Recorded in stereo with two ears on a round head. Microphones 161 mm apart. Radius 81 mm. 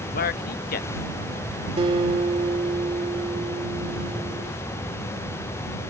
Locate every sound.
0.1 s a man speaking: 55° left (ahead or behind)
1.8 s a guitar: 30° right (ahead or behind)